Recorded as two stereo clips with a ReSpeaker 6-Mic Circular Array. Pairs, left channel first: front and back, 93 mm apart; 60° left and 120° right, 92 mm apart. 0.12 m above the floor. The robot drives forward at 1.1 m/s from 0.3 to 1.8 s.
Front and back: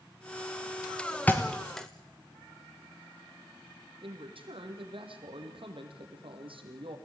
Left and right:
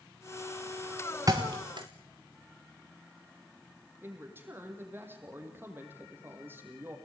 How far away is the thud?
About 2.5 m.